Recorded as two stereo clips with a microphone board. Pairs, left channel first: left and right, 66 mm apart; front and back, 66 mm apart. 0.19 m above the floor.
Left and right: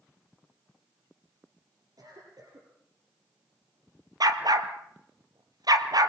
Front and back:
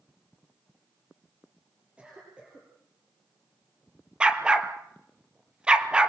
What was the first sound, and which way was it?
A cough, 105° right.